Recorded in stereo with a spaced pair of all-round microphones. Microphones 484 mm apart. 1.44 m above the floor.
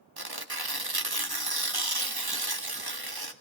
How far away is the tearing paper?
About 1.3 m.